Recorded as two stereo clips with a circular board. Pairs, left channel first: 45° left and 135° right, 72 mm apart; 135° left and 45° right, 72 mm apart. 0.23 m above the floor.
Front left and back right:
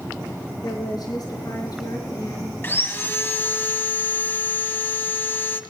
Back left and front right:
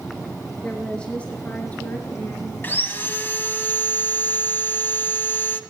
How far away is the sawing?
About 1.5 m.